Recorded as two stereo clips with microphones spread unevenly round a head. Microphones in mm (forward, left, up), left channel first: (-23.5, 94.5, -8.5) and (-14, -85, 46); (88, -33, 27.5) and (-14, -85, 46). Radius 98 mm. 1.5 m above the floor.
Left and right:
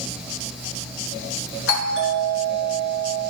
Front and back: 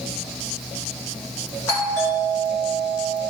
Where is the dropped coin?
No dropped coin in this recording.